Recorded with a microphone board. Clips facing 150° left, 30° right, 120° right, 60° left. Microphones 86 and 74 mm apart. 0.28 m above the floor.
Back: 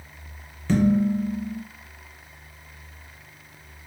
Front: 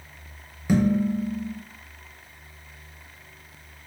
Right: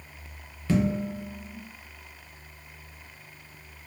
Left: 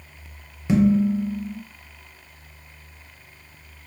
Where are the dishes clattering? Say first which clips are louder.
Back 1 dB, left 8 dB; 25° left, 0.7 m.